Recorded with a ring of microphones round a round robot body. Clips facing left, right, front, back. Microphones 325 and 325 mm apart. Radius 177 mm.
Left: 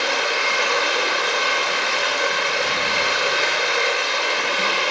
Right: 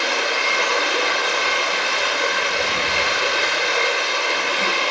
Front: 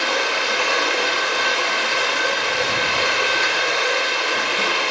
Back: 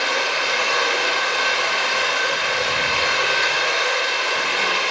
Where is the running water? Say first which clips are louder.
Even, front 2 dB; 20° right, 2.5 m.